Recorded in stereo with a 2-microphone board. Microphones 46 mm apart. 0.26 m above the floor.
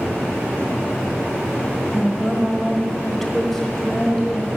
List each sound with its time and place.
1.9 s a woman speaking: 5° right (ahead or behind), 1.5 m; by 4.5 s 15° left (ahead or behind), 1.6 m